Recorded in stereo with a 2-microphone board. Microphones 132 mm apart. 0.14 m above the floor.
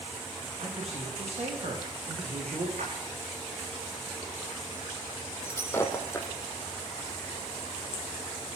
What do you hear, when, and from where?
0.6 s a man speaking: 55° right (ahead or behind), 9.5 m; by 2.7 s 50° right (ahead or behind), 8 m
2.8 s a splash: 70° right (ahead or behind), 6 m
5.4 s breaking glass: 20° left (ahead or behind), 3 m